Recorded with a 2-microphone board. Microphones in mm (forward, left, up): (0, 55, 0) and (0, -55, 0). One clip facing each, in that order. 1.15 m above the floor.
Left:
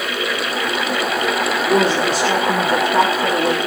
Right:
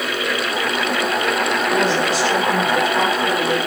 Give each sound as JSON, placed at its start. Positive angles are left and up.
{"t": 1.6, "sound": "a woman speaking", "side_deg": 45, "distance_m": 3.0}